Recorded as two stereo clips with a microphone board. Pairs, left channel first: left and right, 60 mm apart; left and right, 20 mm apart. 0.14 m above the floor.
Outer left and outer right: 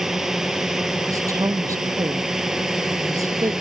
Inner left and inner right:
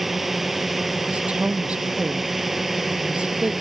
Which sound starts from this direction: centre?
A drone, at 0.0 s.